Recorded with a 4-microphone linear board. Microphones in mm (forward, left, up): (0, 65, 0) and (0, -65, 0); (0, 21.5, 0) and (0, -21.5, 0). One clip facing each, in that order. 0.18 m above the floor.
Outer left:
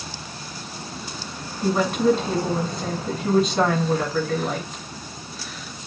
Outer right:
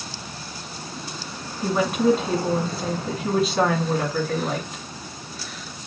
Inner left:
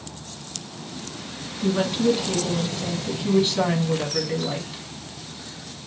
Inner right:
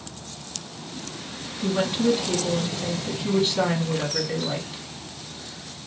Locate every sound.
1.6 s a woman speaking: 5° right (ahead or behind), 1.2 m